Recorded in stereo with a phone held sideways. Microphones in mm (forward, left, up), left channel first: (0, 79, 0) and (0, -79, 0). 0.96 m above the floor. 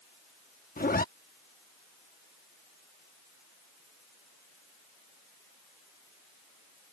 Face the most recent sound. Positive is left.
turn(degrees=65)  # may be behind; listen again after turning